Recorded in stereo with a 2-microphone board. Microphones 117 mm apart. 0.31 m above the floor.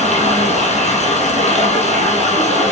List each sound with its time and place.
0.0 s running water: 85° left, 2.5 m